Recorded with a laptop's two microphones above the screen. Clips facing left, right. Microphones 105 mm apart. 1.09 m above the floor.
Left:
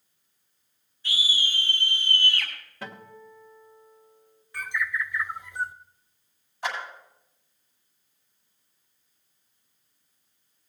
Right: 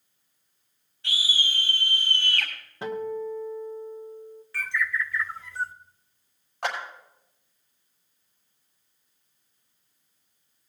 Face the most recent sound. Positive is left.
turn(degrees=-80)